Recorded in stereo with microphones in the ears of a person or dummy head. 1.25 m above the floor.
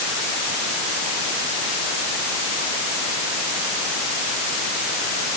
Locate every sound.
Only background noise.